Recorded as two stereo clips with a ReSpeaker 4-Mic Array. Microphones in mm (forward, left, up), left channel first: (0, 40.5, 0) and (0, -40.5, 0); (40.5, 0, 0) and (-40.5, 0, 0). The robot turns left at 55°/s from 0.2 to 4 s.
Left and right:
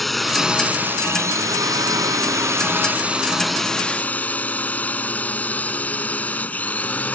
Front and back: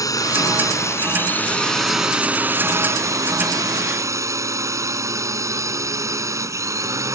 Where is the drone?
Straight ahead; by 7.2 s 155° left.